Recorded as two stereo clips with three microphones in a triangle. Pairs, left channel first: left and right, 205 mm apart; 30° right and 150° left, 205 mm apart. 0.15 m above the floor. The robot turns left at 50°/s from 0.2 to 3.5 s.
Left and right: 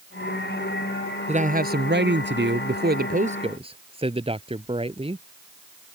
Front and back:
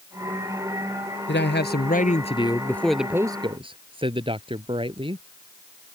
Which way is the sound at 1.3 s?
35° right.